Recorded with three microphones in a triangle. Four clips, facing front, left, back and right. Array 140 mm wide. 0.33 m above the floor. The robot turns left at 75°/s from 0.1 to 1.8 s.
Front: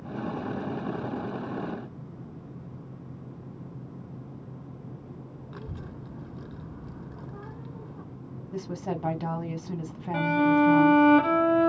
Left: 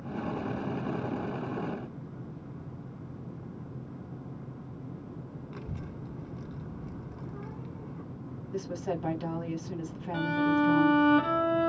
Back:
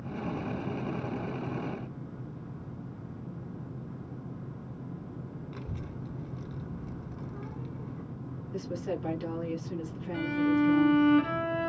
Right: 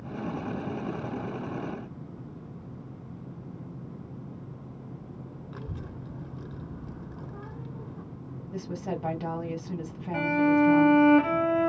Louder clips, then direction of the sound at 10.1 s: Right 4 dB, front 5 dB; 15° right.